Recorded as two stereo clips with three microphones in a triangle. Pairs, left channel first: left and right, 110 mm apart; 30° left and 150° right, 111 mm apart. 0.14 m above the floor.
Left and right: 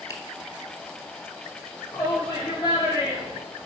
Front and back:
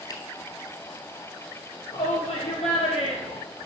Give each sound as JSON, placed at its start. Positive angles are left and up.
{"t": 0.1, "sound": "a finger snap", "azimuth_deg": 55, "distance_m": 1.3}
{"t": 1.9, "sound": "a shout", "azimuth_deg": 35, "distance_m": 4.5}